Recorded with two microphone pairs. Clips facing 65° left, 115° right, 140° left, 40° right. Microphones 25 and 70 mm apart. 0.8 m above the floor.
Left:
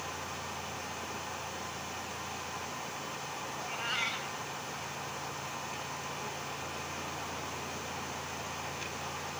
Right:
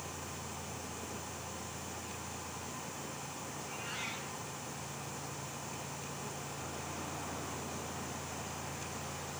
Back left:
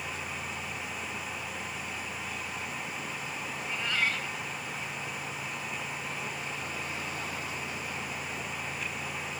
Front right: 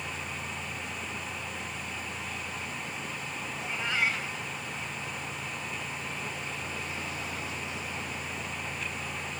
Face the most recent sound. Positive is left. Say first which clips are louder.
# left 8 dB, front right 1 dB
turn(degrees=30)